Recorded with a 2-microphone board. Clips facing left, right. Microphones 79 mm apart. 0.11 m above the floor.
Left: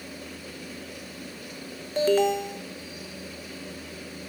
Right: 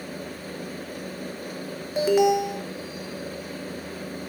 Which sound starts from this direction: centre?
An alarm, at 2.0 s.